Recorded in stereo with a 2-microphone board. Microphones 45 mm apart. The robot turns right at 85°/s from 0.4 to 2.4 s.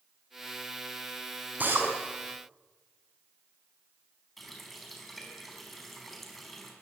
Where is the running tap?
Centre (ahead or behind), 4.5 m.